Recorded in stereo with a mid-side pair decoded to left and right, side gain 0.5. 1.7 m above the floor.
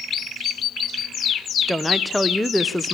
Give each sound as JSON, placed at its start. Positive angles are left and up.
{"t": 1.7, "sound": "a woman speaking", "azimuth_deg": 5, "distance_m": 1.0}